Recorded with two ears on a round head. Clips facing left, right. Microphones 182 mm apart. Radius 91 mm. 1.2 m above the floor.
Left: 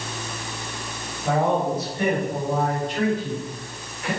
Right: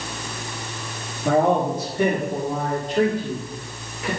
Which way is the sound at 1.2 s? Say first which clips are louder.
Right 3 dB; 80° right.